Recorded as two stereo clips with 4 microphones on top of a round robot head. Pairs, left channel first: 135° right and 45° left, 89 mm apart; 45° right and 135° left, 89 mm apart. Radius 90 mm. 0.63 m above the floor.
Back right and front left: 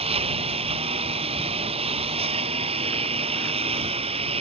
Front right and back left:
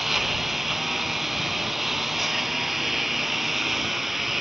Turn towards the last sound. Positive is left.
turn(degrees=50)